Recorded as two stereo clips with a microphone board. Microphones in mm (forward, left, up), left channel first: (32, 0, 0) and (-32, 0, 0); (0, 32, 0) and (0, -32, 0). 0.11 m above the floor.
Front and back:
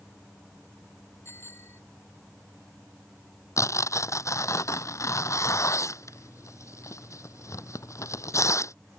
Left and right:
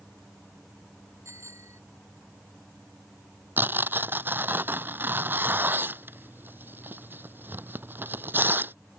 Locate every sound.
1.2 s a bicycle bell: 50° right
3.6 s tearing paper: 35° right